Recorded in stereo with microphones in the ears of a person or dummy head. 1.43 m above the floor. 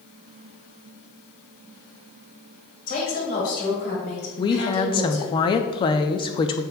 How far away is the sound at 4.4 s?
About 0.5 m.